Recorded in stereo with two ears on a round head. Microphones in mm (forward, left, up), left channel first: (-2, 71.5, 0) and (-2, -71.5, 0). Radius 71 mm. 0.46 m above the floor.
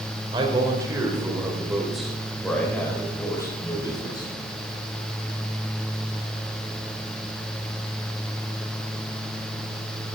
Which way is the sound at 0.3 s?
30° right (ahead or behind).